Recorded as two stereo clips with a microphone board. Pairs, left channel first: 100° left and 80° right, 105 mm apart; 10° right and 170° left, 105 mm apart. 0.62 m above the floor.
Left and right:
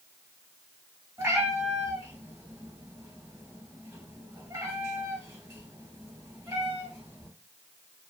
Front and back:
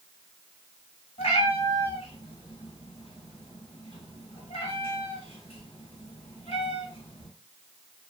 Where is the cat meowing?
20° right, 1.0 m.